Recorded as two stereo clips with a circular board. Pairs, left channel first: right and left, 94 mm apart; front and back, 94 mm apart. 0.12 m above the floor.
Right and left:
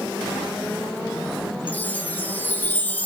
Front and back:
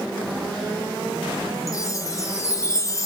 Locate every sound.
1.7 s a chime: 30° right, 0.6 m